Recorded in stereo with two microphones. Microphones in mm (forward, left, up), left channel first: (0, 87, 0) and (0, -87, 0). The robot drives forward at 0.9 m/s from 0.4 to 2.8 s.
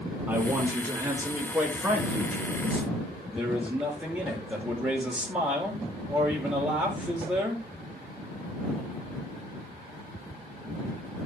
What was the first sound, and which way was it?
A man speaking, 10° right (ahead or behind).